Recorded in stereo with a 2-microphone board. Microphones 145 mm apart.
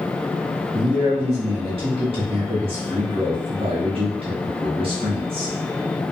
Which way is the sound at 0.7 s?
40° right (ahead or behind).